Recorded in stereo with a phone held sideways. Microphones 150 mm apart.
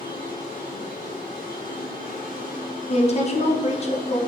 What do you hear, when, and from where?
0.0 s a machine running: 65° left (ahead or behind), 1.4 m
2.9 s a woman speaking: 45° left (ahead or behind), 0.6 m